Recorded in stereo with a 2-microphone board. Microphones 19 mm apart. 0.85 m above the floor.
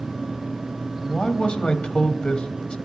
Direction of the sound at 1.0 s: 65° left (ahead or behind).